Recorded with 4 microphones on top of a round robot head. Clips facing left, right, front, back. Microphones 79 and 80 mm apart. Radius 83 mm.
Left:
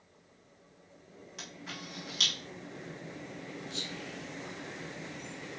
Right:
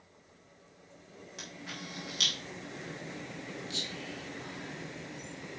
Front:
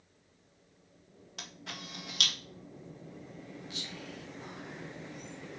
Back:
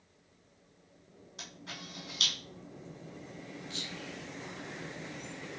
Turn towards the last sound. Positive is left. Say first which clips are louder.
# even, back 1 dB
turn(degrees=-85)